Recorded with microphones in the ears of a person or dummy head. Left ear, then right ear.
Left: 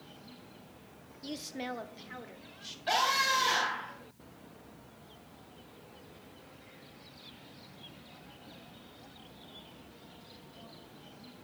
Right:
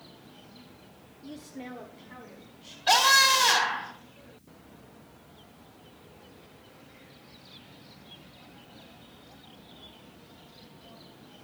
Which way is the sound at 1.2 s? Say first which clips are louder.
Left 4 dB; 55° left (ahead or behind).